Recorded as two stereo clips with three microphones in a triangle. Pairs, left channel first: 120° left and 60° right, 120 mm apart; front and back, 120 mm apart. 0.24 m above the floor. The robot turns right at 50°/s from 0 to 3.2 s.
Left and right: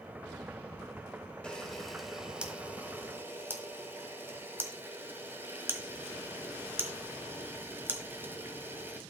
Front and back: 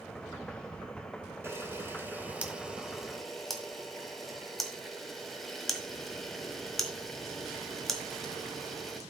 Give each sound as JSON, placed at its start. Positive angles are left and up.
{"t": 1.4, "sound": "a camera shutter", "azimuth_deg": -175, "distance_m": 1.5}